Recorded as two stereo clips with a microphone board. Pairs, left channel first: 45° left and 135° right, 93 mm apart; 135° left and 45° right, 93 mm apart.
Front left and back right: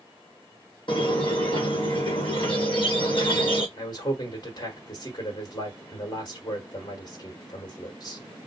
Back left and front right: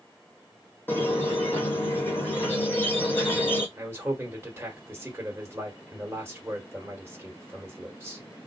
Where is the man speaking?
15° left, 1.5 m.